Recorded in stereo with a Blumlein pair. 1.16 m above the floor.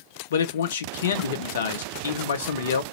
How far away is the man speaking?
About 0.6 m.